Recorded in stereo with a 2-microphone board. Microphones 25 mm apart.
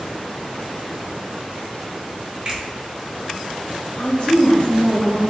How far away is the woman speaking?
About 1.3 m.